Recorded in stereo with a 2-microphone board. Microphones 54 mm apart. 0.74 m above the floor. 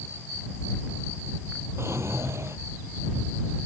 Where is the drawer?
55° right (ahead or behind).